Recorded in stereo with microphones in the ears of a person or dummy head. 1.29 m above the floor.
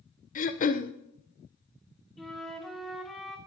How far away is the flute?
About 1.3 m.